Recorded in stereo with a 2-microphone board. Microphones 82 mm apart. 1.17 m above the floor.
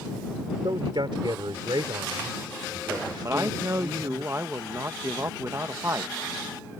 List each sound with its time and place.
0.6 s a man speaking: 70° right (ahead or behind)
3.2 s a man speaking: 35° right (ahead or behind)